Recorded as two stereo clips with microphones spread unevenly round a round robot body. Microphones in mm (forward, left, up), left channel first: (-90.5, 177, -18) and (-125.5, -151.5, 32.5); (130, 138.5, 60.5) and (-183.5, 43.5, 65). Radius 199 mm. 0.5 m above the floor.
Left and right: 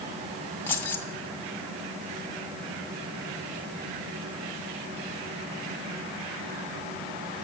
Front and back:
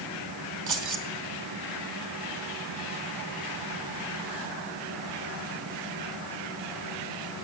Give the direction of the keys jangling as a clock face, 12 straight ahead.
6 o'clock.